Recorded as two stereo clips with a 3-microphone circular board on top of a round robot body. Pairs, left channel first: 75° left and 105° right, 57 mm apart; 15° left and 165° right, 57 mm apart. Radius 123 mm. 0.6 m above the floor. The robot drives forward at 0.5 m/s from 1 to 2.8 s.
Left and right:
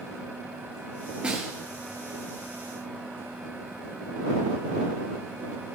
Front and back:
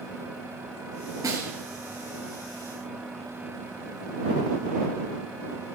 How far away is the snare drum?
About 2.5 m.